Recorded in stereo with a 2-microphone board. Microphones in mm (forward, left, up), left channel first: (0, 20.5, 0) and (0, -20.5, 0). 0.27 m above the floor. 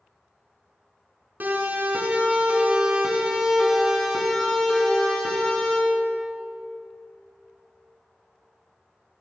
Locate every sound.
1.4 s a siren: 55° right (ahead or behind), 4 m; by 5.8 s 25° left (ahead or behind), 4.5 m